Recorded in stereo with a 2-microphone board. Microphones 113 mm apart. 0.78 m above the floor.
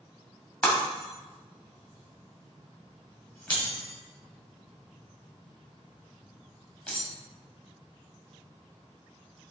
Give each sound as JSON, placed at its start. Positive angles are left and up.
{"t": 0.6, "sound": "breaking glass", "side_deg": 10, "distance_m": 1.8}